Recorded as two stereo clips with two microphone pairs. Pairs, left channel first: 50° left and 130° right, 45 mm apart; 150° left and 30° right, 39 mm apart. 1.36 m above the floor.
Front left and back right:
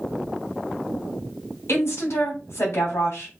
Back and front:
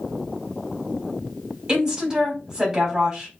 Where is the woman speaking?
30° left, 3 m.